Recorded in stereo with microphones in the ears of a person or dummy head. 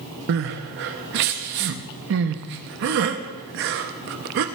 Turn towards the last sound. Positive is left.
turn(degrees=-45)  # may be behind; listen again after turning